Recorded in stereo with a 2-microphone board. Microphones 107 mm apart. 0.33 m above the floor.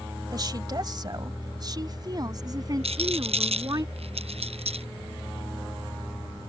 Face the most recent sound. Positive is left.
turn(degrees=-70)  # may be behind; listen again after turning